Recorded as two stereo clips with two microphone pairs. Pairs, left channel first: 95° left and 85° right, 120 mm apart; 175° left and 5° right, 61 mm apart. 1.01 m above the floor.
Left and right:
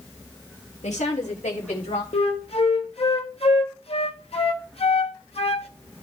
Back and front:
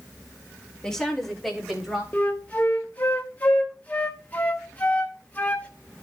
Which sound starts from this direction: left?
A woman speaking, at 0.8 s.